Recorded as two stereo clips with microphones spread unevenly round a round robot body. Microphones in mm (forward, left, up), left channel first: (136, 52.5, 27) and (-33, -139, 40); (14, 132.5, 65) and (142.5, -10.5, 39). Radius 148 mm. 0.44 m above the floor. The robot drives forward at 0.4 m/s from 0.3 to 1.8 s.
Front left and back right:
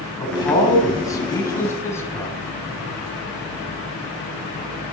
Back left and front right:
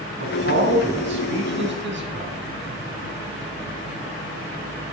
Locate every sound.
0.2 s a man speaking: 25° right, 3.5 m; by 2.4 s 30° right, 3 m